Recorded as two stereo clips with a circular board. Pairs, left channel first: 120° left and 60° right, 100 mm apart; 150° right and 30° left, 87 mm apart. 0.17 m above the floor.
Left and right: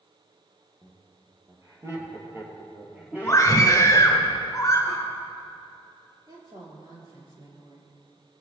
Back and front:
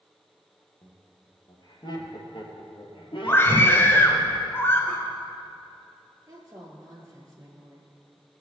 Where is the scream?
160° left, 2 m.